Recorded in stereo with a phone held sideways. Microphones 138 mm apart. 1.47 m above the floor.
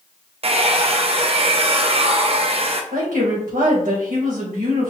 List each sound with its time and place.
0.4 s a hair dryer: 45° right (ahead or behind), 0.5 m
2.9 s a woman speaking: 85° right, 1.8 m